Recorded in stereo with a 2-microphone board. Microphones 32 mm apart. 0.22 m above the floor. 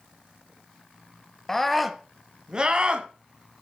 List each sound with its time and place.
1.5 s a scream: 10° left (ahead or behind), 1.1 m; by 3.1 s 40° right (ahead or behind), 1.5 m